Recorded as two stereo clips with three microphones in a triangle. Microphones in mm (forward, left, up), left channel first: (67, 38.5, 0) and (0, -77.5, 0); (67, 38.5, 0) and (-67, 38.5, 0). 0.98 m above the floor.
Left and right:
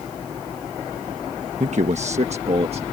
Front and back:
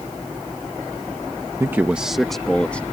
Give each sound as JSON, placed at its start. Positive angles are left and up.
{"t": 1.6, "sound": "a man speaking", "azimuth_deg": -115}